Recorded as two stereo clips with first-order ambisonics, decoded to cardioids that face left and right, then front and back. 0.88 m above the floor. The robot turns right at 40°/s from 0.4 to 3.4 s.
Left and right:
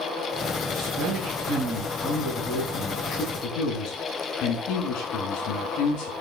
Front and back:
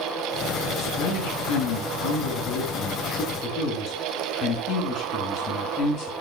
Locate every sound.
0.7 s a man speaking: 45° right, 7 m; by 6.1 s 60° left, 7 m